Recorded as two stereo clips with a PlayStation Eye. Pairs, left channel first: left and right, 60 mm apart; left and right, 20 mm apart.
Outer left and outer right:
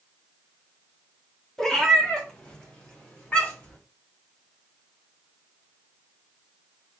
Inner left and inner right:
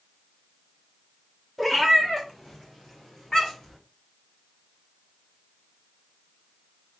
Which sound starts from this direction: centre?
A cat meowing, at 1.6 s.